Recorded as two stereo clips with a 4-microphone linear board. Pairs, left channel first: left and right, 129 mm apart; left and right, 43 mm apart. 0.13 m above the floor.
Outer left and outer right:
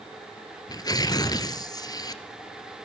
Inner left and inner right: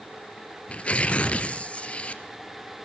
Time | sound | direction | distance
0.7 | tearing paper | 30° left (ahead or behind) | 1.0 m